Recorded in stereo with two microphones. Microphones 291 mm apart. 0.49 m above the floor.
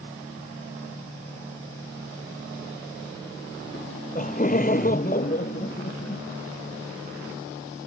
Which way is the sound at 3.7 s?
25° left (ahead or behind).